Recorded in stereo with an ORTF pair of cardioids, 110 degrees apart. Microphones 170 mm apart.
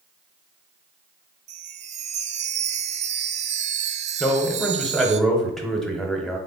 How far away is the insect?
No insect in this recording.